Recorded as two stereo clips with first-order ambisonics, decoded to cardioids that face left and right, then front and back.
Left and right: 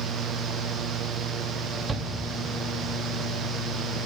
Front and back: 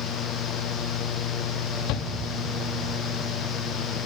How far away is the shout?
About 1.7 m.